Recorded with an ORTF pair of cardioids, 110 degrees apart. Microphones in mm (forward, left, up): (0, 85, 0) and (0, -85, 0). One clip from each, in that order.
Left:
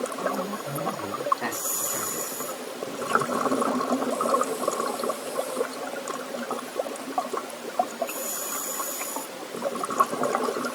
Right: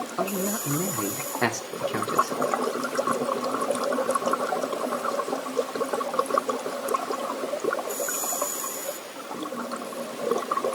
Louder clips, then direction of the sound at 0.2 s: Even; 60° right.